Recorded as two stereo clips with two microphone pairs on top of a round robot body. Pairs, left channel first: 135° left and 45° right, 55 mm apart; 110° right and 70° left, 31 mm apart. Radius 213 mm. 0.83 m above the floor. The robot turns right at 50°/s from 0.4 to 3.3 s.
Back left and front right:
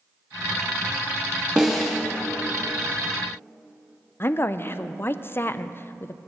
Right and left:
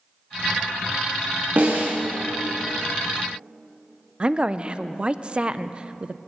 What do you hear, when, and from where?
1.6 s a snare drum: 25° left, 1.8 m; by 1.9 s 45° left, 1.8 m
4.2 s a woman speaking: 90° left, 0.6 m